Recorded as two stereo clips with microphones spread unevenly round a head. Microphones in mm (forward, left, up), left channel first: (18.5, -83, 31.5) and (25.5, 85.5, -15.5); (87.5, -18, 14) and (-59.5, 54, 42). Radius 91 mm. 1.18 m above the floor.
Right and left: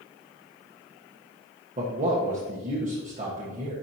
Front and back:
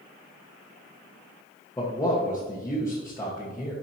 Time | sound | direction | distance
1.8 | a man speaking | 45° left | 1.4 m